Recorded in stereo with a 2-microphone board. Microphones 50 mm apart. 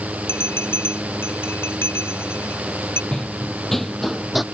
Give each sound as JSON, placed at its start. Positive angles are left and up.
{"t": 0.3, "sound": "a bell", "side_deg": 55}
{"t": 3.1, "sound": "running footsteps", "side_deg": 15}